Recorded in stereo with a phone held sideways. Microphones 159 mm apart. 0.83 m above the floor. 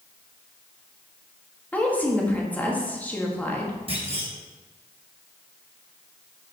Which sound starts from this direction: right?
A clunk, at 3.9 s.